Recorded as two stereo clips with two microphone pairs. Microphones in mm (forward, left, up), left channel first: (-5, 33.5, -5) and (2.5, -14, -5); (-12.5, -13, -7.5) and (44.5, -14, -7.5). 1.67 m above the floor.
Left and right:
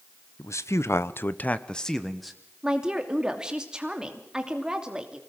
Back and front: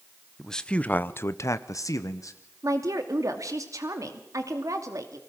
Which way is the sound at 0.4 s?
95° left.